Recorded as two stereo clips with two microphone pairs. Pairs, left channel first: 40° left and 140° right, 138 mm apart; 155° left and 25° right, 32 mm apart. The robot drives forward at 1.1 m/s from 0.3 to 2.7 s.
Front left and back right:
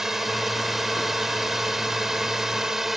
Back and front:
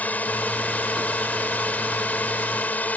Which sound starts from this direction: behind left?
A drone, at 0.0 s.